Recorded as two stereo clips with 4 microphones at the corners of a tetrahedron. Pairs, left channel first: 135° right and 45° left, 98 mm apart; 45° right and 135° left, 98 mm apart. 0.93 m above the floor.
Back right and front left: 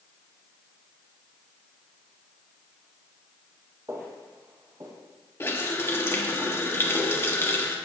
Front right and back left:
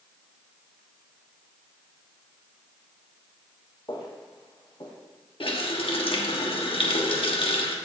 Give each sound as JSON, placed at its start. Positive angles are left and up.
{"t": 3.9, "sound": "footsteps", "azimuth_deg": -10, "distance_m": 1.7}
{"t": 5.4, "sound": "a running tap", "azimuth_deg": -70, "distance_m": 1.2}